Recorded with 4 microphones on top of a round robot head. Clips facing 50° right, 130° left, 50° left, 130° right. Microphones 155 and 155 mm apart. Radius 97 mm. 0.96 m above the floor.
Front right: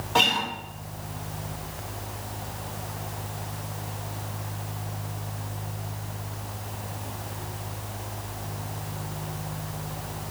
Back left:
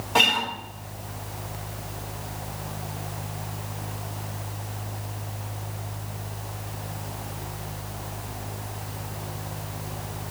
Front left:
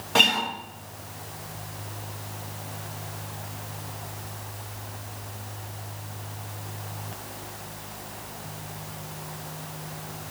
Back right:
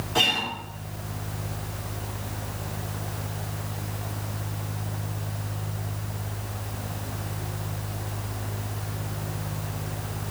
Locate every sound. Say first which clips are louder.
0.1 s a guitar: back left 1 dB, front left 3 dB; 50° left, 1.4 m